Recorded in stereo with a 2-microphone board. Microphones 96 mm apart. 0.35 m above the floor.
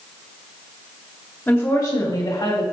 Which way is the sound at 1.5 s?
20° left (ahead or behind).